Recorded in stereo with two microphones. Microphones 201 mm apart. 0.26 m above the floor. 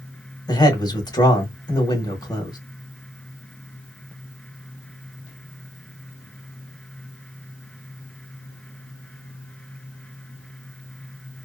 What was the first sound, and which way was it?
A man speaking, 20° left (ahead or behind).